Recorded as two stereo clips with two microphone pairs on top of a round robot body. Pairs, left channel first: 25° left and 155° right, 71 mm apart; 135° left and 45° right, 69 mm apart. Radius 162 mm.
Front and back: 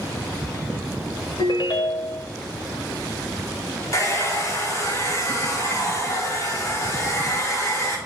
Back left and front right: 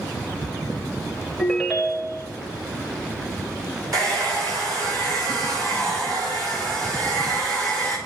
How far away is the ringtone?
About 0.9 m.